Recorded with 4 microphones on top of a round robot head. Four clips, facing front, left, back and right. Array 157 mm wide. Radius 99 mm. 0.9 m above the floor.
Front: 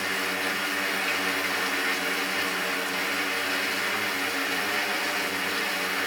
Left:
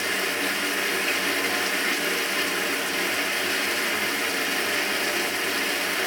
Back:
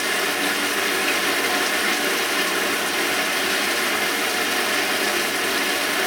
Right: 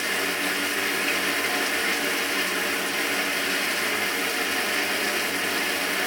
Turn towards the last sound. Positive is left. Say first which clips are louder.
# even, back 6 dB
turn(degrees=175)